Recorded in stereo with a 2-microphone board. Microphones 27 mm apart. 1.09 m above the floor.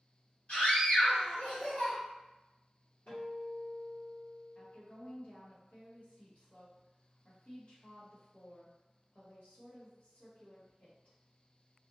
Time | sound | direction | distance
0.5 | a scream | 60° left (ahead or behind) | 1.7 m
3.1 | a guitar | 65° left (ahead or behind) | 1.5 m
4.5 | a woman speaking | 70° left (ahead or behind) | 1.5 m